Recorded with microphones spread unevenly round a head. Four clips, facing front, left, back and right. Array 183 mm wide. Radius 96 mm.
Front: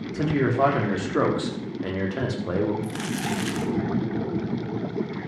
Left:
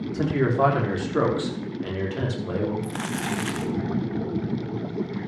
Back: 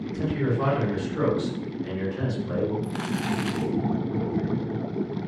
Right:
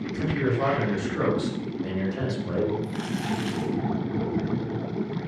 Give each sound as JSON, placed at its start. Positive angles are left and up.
{"t": 0.1, "sound": "a man speaking", "azimuth_deg": 40, "distance_m": 4.5}
{"t": 2.8, "sound": "crumpling", "azimuth_deg": 90, "distance_m": 0.7}